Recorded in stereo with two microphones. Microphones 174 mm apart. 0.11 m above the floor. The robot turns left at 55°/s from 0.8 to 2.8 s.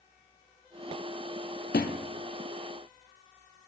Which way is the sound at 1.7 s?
75° left (ahead or behind).